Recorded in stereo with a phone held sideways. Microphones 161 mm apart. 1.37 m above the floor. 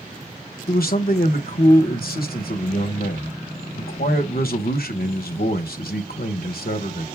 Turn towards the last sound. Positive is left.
turn(degrees=75)  # may be behind; listen again after turning